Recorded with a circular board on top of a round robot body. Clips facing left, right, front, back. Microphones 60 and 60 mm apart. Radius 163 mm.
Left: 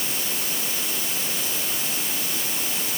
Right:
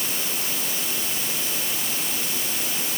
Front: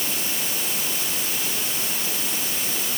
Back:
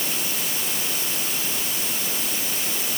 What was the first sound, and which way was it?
Only background noise.